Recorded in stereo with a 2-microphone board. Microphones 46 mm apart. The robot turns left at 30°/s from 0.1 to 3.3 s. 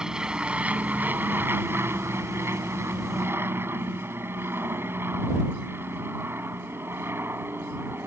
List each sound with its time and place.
0.0 s an aircraft: 15° right; by 8.1 s 110° right